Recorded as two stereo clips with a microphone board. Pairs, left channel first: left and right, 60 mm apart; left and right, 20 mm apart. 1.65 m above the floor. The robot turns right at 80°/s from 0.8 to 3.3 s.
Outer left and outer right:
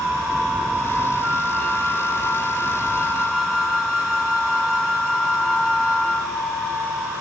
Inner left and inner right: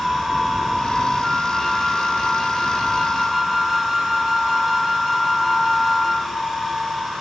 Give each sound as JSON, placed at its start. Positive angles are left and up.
{"t": 1.2, "sound": "a flute", "azimuth_deg": 0, "distance_m": 5.5}